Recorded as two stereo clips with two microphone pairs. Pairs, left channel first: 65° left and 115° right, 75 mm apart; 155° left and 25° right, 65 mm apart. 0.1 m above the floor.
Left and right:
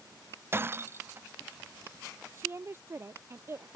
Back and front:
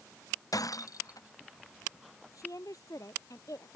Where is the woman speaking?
175° right.